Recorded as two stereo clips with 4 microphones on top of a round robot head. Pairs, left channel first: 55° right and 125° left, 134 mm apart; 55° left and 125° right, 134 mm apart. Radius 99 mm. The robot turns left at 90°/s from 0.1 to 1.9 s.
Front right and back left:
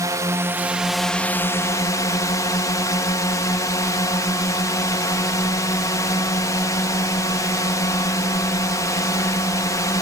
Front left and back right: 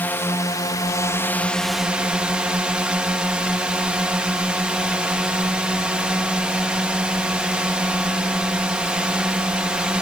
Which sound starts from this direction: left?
A drone, at 0.0 s.